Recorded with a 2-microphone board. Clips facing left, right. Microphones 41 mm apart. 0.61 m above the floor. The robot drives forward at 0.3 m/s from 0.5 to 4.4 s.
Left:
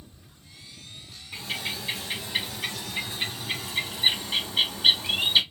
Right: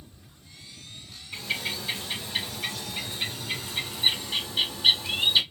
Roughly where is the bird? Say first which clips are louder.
Right 1 dB; centre.